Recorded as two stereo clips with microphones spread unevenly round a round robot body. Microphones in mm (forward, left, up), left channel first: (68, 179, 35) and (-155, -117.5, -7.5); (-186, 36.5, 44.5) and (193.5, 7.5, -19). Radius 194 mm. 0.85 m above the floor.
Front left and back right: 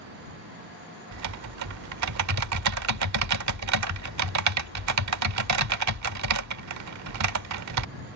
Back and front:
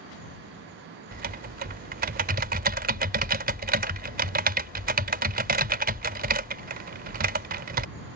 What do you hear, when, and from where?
1.1 s typing on a keyboard: 75° right